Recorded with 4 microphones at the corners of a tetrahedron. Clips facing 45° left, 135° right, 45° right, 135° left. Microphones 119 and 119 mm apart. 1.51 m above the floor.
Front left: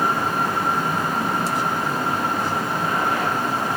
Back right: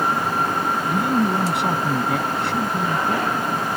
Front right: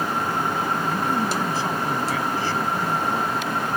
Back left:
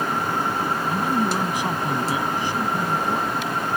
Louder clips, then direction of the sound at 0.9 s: Back right 4 dB, back left 1 dB; 150° right.